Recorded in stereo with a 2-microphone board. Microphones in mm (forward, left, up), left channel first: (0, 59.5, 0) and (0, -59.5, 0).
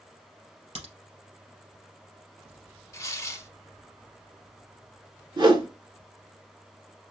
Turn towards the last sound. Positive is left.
turn(degrees=-45)  # may be behind; listen again after turning